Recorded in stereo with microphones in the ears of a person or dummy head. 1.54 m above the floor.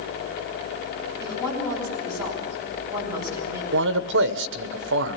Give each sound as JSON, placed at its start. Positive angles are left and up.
{"t": 1.2, "sound": "a woman speaking", "side_deg": -10, "distance_m": 9.5}
{"t": 3.7, "sound": "a man speaking", "side_deg": -60, "distance_m": 1.1}